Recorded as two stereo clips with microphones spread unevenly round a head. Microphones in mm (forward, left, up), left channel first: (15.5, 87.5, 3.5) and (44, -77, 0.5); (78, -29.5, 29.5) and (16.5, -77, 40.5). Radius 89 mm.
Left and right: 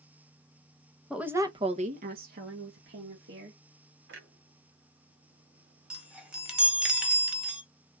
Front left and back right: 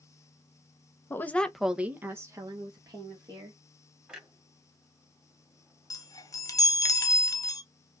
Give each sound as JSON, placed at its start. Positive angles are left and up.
{"t": 1.1, "sound": "a woman speaking", "azimuth_deg": 5, "distance_m": 1.0}
{"t": 4.1, "sound": "a clunk", "azimuth_deg": -65, "distance_m": 1.8}
{"t": 5.9, "sound": "a chime", "azimuth_deg": 5, "distance_m": 1.4}